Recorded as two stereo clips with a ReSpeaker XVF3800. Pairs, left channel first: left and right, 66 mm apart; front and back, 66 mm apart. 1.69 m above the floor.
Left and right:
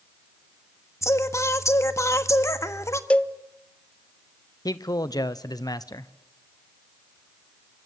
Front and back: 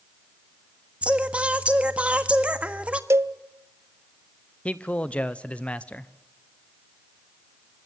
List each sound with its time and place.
1.0 s singing: 115° left, 1.5 m
3.1 s a cowbell: 155° left, 0.8 m
4.7 s a man speaking: 70° left, 1.1 m